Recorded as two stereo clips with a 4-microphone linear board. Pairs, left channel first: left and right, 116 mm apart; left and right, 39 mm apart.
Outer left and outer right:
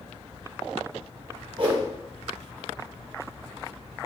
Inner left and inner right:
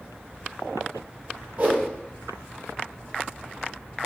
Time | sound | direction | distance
1.6 | a whoosh | 45° right (ahead or behind) | 1.2 m